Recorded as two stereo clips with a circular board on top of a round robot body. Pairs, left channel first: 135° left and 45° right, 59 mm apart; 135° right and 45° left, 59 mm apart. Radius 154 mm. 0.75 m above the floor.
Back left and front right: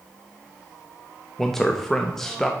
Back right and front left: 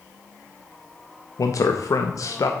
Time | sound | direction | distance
1.4 | a man speaking | 140° right | 0.9 m